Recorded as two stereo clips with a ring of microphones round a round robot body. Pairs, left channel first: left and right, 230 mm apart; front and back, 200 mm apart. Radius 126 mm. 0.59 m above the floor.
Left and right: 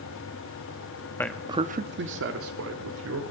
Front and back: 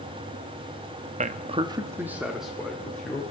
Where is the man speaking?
165° left, 0.8 m; by 3.2 s 85° right, 2 m.